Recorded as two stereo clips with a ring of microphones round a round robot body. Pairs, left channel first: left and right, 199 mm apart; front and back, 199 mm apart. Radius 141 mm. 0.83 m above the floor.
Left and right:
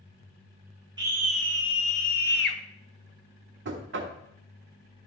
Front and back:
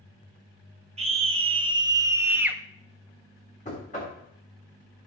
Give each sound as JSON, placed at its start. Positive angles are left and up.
{"t": 1.0, "sound": "a scream", "azimuth_deg": -145, "distance_m": 0.9}
{"t": 3.6, "sound": "knocking", "azimuth_deg": -65, "distance_m": 1.4}